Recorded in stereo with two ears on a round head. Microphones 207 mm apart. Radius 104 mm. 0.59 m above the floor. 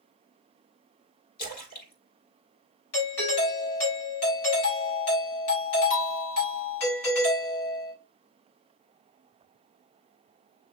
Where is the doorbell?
70° left (ahead or behind), 3.5 m.